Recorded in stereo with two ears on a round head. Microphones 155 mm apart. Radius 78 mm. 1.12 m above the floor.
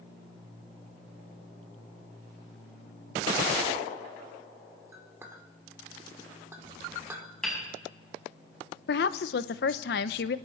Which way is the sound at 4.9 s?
15° right (ahead or behind).